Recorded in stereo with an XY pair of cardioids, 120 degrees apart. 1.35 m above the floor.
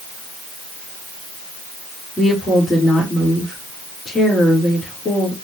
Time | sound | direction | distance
2.2 | a woman speaking | 25° left | 3 m